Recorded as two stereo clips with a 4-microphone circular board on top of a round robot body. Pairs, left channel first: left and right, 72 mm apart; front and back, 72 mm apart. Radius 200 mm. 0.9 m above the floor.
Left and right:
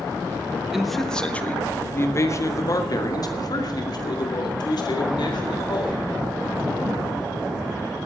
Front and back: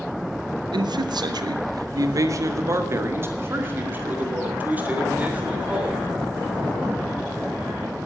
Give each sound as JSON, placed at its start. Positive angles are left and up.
{"t": 0.7, "sound": "a man speaking", "azimuth_deg": -175, "distance_m": 1.3}